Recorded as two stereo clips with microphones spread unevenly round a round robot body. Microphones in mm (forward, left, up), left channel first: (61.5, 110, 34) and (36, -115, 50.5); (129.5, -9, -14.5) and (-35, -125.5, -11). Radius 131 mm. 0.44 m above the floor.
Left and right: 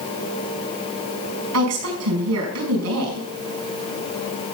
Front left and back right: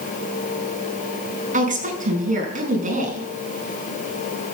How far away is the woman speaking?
About 5.5 m.